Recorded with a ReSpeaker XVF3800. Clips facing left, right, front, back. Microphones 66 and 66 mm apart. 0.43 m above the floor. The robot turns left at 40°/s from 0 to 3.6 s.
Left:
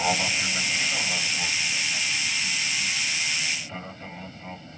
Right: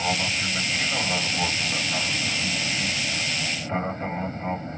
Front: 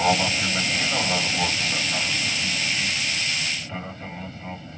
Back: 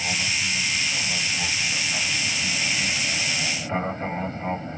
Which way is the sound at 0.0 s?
15° left.